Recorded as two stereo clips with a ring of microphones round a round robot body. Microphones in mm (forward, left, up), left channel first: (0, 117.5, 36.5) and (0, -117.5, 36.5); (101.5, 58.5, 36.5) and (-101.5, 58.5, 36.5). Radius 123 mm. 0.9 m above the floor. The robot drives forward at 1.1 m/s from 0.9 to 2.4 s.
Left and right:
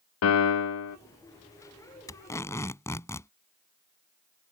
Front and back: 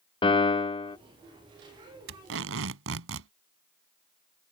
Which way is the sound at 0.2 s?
65° left.